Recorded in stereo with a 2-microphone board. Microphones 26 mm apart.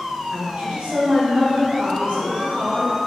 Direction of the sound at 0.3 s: 60° right (ahead or behind).